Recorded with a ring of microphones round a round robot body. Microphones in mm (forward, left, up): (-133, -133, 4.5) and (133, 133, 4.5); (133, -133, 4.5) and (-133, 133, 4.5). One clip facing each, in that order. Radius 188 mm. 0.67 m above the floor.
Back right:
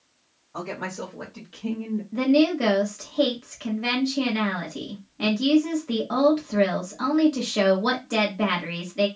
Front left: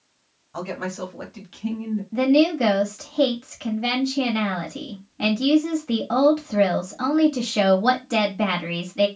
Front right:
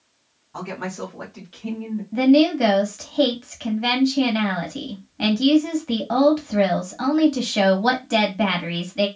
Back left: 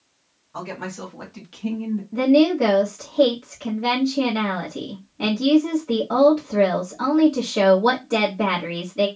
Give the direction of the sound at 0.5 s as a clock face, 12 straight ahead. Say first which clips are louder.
Front left 3 dB, front right 2 dB; 11 o'clock.